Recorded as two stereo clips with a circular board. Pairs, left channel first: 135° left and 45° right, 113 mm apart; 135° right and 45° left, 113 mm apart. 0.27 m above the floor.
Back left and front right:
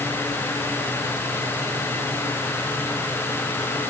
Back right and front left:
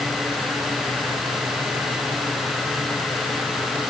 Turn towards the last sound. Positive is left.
No sound to turn to.